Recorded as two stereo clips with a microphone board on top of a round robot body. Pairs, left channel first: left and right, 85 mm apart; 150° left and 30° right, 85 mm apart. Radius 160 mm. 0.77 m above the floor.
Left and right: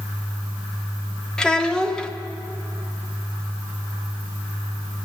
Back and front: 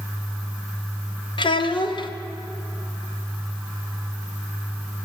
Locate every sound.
1.4 s a child speaking: 170° left, 1.6 m